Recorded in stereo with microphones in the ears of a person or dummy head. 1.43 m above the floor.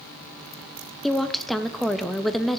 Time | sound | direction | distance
1.0 | a woman speaking | centre (ahead or behind) | 0.6 m